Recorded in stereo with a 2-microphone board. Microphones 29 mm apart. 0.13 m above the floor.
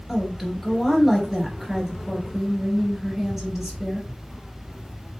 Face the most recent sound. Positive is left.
turn(degrees=-5)  # may be behind; listen again after turning